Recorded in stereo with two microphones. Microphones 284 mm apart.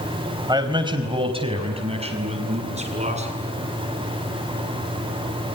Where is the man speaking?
15° right (ahead or behind), 4 m; by 3.3 s 25° right (ahead or behind), 8 m.